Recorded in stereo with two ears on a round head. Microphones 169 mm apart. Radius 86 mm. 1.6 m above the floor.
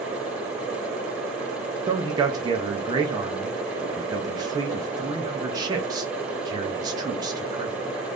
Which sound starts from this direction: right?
A man speaking, at 1.9 s.